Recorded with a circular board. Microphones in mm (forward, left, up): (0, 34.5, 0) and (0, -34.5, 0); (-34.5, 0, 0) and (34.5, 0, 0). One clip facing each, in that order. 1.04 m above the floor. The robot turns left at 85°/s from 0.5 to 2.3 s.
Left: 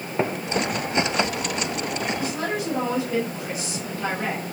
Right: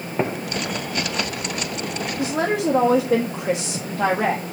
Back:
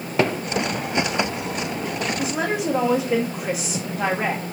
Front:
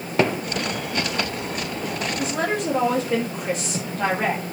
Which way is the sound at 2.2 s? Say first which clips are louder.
Right 5 dB, front 1 dB; 90° right.